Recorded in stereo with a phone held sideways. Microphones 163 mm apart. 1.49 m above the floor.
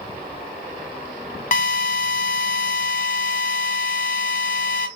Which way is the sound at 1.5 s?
50° left (ahead or behind).